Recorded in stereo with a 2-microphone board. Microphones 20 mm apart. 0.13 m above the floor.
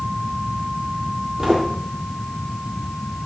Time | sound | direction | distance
1.4 | footsteps | 25° right (ahead or behind) | 5 m